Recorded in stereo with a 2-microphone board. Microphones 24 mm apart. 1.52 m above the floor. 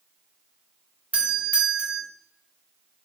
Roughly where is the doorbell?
Right.